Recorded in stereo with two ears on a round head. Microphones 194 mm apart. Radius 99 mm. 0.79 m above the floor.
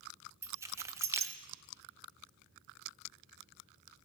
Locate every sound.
0.4 s keys jangling: 15° right (ahead or behind), 0.5 m